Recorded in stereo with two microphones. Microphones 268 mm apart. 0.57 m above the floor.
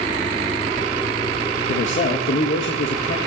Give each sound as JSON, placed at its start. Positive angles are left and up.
{"t": 1.7, "sound": "a man speaking", "side_deg": 45, "distance_m": 1.8}